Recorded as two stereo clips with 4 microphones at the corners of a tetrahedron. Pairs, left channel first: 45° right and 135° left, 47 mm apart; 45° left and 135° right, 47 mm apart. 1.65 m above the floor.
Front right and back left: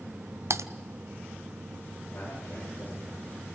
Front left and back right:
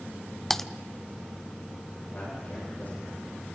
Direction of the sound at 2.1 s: 5° right.